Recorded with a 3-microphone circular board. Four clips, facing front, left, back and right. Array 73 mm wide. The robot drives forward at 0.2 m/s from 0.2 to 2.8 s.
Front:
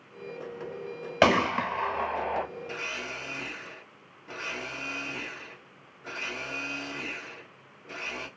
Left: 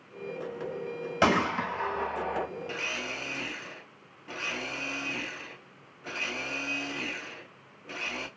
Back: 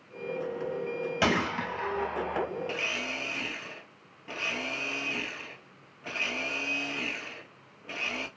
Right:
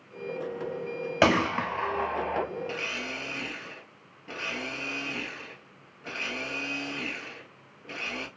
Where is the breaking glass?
No breaking glass in this recording.